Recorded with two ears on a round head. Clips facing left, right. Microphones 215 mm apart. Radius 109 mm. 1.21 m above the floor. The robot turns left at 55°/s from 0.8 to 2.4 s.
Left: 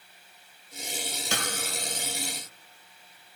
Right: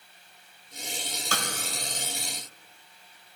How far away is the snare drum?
About 1.0 m.